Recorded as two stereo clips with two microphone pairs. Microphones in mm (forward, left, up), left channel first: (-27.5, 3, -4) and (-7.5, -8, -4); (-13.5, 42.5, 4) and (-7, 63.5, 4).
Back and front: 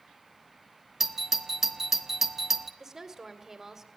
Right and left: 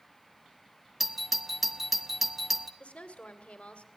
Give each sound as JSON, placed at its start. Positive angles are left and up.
{"t": 1.0, "sound": "a doorbell", "azimuth_deg": 25, "distance_m": 1.1}
{"t": 2.8, "sound": "a woman speaking", "azimuth_deg": -95, "distance_m": 2.5}